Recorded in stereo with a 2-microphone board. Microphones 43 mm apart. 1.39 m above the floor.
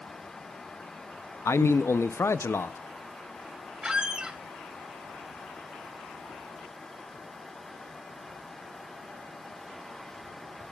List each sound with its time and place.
1.4 s a man speaking: 80° left, 0.7 m
3.8 s a squeak: 20° right (ahead or behind), 1.3 m